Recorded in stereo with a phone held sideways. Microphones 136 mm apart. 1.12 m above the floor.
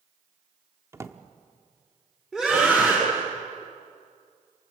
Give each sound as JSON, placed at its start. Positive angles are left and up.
{"t": 0.9, "sound": "a drawer", "side_deg": -20, "distance_m": 1.3}
{"t": 2.3, "sound": "a scream", "side_deg": -5, "distance_m": 10.0}